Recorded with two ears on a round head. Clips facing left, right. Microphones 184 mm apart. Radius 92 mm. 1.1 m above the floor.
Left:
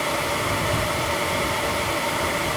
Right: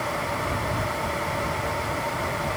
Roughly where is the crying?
I don't hear crying.